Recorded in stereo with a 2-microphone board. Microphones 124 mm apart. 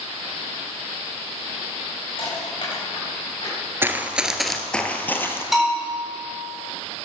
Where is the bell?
Centre (ahead or behind), 7.5 m.